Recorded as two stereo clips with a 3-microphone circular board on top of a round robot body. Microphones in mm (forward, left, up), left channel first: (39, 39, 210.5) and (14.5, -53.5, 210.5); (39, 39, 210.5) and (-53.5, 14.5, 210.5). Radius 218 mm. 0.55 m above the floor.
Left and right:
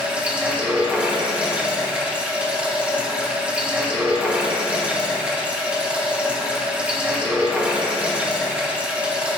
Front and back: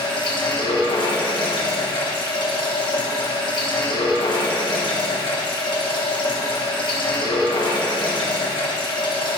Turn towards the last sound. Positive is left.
turn(degrees=-30)